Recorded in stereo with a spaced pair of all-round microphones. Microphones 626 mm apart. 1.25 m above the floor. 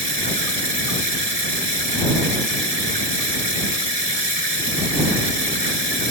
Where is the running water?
65° right (ahead or behind).